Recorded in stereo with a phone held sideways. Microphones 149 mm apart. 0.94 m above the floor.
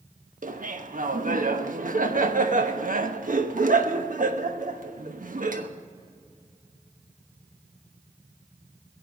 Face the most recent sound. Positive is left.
turn(degrees=-65)  # may be behind; listen again after turning